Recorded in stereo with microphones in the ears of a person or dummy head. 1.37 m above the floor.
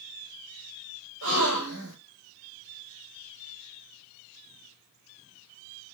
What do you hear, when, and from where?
1.2 s a gasp: 70° right (ahead or behind), 6.5 m